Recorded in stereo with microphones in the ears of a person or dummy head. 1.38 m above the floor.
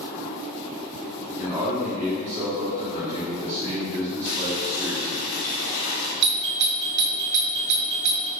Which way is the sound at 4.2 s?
80° left.